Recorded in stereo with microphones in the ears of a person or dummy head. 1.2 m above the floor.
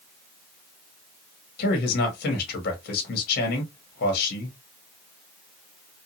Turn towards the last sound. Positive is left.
turn(degrees=55)  # may be behind; listen again after turning